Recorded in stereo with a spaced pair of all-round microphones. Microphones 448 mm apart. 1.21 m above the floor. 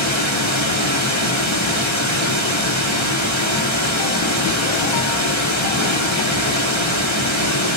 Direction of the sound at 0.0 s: 80° left.